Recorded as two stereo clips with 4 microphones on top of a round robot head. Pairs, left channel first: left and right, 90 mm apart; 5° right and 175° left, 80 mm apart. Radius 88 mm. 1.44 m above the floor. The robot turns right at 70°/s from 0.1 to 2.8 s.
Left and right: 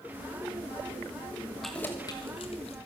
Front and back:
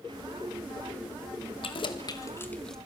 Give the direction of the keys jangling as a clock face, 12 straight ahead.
12 o'clock.